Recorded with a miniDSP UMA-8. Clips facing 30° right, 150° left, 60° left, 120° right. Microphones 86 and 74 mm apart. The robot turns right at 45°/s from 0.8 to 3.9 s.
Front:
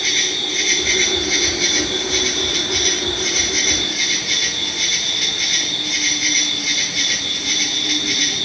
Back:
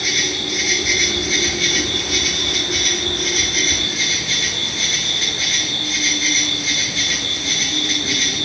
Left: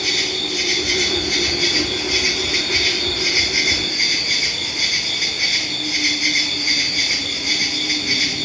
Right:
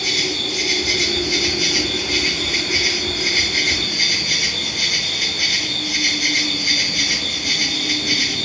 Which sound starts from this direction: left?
An insect, at 0.0 s.